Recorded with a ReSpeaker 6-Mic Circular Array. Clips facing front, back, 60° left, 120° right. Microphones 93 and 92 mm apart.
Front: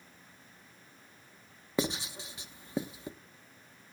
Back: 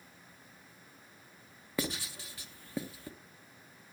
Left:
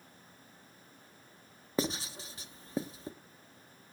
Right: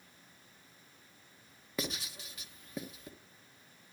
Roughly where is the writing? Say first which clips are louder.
Front 4 dB, left 6 dB; ahead left.